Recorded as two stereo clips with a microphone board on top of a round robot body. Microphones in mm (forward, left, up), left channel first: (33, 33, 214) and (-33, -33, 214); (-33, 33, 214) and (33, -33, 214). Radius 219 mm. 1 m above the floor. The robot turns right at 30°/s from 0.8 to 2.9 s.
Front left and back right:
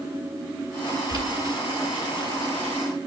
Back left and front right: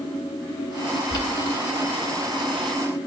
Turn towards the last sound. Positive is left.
turn(degrees=-125)